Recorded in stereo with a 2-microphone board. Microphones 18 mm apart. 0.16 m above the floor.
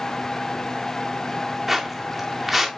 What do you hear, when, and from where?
1.7 s footsteps: 5° right (ahead or behind), 1.7 m